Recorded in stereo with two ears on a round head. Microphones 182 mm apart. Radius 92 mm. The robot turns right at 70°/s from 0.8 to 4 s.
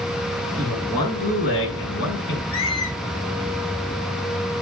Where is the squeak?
70° left, 3 m; by 3.0 s 100° left, 3 m.